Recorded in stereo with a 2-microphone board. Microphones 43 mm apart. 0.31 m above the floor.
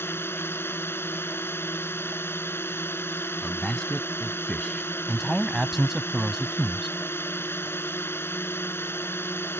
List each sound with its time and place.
0.0 s a drone: 70° left (ahead or behind)
3.4 s a man speaking: 20° left (ahead or behind)
5.1 s a man speaking: 5° right (ahead or behind)